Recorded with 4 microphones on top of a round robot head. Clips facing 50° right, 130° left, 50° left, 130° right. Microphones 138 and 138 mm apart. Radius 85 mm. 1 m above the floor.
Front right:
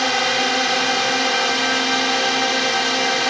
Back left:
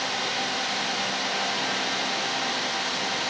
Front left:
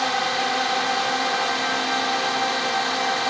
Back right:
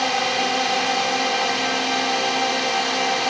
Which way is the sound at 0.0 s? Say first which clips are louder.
Front right 10 dB, back right 2 dB; 55° right.